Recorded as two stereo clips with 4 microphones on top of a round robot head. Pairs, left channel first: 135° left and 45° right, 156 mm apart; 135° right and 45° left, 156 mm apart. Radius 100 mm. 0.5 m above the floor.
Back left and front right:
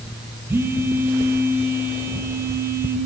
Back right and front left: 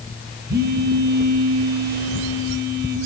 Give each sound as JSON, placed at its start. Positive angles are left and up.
{"t": 0.5, "sound": "a phone buzzing", "azimuth_deg": 30, "distance_m": 1.0}